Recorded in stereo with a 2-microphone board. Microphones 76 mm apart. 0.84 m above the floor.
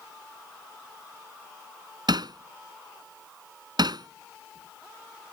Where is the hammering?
65° right (ahead or behind).